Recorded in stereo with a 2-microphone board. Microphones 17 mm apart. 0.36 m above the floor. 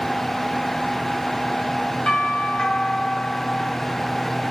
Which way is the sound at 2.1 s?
70° left (ahead or behind).